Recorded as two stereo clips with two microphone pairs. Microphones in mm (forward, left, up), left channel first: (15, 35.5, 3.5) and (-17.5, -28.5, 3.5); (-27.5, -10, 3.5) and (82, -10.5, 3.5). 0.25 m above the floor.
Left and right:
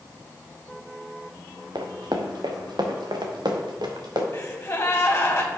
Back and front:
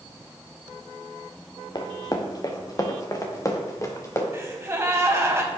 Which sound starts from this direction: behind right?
Running footsteps, at 1.8 s.